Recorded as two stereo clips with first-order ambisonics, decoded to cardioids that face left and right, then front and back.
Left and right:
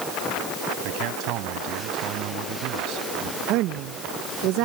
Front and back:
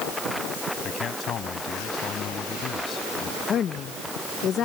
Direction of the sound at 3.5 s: 60° right.